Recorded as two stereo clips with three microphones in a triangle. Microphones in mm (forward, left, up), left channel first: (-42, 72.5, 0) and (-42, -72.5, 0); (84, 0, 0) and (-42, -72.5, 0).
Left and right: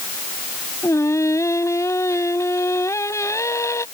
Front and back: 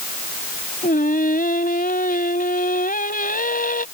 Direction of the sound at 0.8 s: 20° left.